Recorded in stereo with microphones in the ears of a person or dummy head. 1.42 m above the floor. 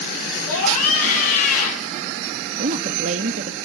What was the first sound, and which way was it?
A scream, 50° left (ahead or behind).